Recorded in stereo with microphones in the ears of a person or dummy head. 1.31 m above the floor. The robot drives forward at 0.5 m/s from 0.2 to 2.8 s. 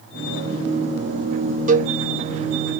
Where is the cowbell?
45° right (ahead or behind), 0.7 m; by 1.9 s 40° right (ahead or behind), 0.8 m.